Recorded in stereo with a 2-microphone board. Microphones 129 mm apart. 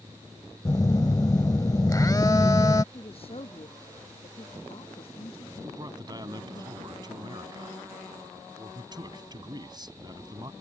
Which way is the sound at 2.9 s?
45° left (ahead or behind).